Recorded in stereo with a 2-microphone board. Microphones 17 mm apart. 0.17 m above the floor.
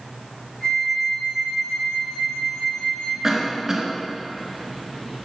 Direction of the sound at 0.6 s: 75° left (ahead or behind).